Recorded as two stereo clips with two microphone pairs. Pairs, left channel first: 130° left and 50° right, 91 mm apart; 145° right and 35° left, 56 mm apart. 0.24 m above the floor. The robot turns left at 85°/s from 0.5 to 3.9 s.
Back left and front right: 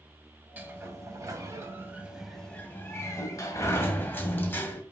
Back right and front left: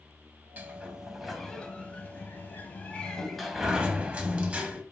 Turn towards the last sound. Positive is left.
turn(degrees=85)